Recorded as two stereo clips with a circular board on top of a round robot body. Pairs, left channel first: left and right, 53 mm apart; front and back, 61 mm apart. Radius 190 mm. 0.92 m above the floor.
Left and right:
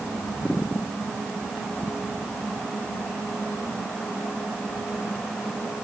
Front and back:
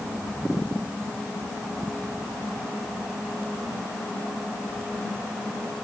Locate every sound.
Only background noise.